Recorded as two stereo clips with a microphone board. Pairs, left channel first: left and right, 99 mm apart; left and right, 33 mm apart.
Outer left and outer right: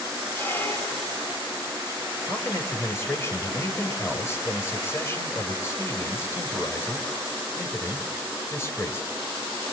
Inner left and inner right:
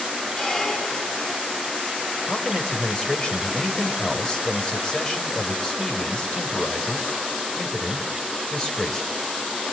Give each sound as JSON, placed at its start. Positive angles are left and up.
{"t": 0.4, "sound": "a squeak", "side_deg": 20, "distance_m": 1.6}
{"t": 2.3, "sound": "a man speaking", "side_deg": 25, "distance_m": 3.5}